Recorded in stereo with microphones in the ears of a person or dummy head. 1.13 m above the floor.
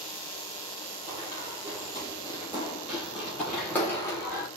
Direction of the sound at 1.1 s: 35° right (ahead or behind).